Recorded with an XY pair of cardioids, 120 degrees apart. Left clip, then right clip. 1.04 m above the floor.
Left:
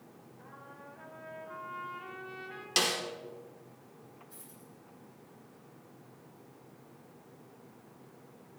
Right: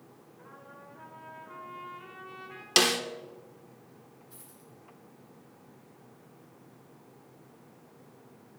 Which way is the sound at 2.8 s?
40° right.